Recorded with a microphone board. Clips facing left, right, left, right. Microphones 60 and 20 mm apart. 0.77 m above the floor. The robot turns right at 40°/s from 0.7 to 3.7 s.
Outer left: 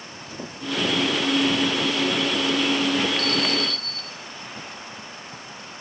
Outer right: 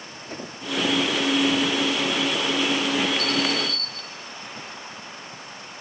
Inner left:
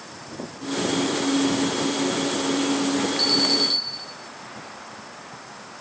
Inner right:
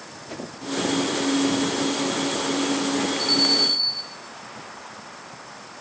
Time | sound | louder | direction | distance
0.3 | a whoosh | outer right 1 dB, inner right 1 dB | 45° right (ahead or behind) | 3.5 m
3.2 | an alarm | even, inner right 1 dB | 55° left (ahead or behind) | 8 m